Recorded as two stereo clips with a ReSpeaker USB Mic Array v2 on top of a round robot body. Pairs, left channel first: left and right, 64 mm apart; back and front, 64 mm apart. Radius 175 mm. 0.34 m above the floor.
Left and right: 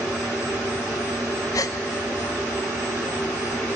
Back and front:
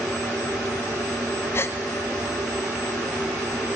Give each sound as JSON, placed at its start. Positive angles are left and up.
{"t": 1.5, "sound": "a gasp", "azimuth_deg": 125, "distance_m": 0.7}